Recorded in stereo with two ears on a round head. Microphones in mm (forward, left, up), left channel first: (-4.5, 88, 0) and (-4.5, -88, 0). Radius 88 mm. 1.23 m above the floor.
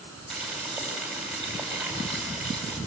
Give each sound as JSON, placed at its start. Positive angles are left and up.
{"t": 0.3, "sound": "boiling", "side_deg": 0, "distance_m": 6.0}